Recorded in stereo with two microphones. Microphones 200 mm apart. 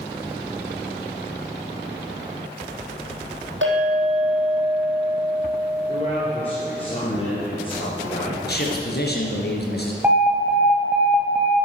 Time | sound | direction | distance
3.6 | a clink | 75° right (ahead or behind) | 4 m
5.9 | a man speaking | 30° left (ahead or behind) | 3.5 m
8.4 | a man speaking | 55° left (ahead or behind) | 2.5 m
10.0 | an alarm | 10° right (ahead or behind) | 1.6 m